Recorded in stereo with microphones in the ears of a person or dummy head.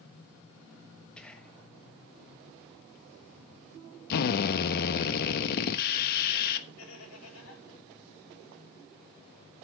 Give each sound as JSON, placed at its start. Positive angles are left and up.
{"t": 1.2, "sound": "whispering", "side_deg": 0, "distance_m": 1.5}
{"t": 4.1, "sound": "a drill", "side_deg": 60, "distance_m": 1.0}
{"t": 6.8, "sound": "laughter", "side_deg": 70, "distance_m": 5.5}